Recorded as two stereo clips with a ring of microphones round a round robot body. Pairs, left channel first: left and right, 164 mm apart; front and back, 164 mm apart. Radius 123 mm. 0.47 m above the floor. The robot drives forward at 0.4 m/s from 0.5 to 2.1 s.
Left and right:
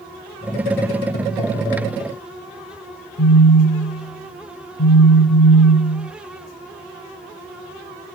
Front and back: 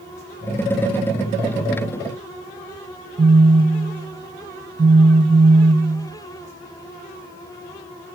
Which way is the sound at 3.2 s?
120° left.